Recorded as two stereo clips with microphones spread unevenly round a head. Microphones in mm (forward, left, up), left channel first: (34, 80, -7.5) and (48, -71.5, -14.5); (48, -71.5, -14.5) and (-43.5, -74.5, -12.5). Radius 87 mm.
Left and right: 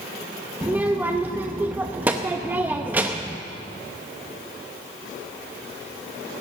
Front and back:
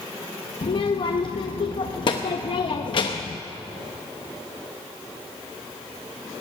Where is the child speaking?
5° right, 0.7 m.